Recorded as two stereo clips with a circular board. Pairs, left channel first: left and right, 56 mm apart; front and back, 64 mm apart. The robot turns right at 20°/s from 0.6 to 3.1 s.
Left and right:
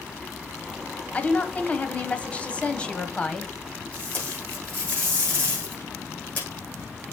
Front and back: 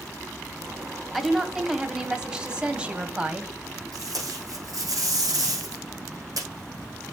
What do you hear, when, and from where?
1.1 s a woman speaking: 95° left, 1.0 m; by 3.5 s 135° left, 1.0 m
3.9 s tape being pulled: 150° left, 5.5 m